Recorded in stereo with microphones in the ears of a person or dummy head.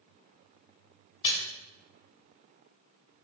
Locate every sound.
1.2 s a splash: 30° left (ahead or behind), 3.5 m